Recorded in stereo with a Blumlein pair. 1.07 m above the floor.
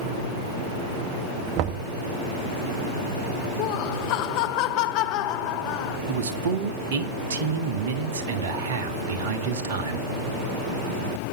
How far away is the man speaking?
About 1.8 m.